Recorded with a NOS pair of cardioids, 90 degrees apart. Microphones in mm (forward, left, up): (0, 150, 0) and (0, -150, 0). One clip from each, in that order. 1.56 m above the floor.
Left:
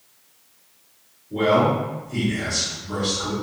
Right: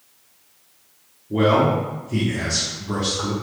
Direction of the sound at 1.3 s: 70° right.